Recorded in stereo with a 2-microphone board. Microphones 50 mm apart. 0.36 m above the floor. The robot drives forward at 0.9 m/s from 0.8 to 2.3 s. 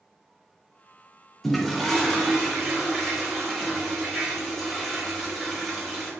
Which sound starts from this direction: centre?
A toilet flushing, at 1.4 s.